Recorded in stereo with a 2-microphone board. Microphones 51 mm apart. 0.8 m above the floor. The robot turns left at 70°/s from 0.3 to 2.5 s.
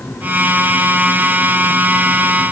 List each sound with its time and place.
Only background noise.